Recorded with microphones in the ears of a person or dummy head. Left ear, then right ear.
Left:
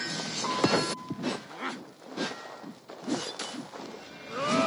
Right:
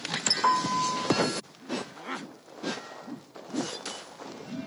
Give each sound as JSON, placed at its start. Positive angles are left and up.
{"t": 0.4, "sound": "a piano", "side_deg": -55, "distance_m": 1.9}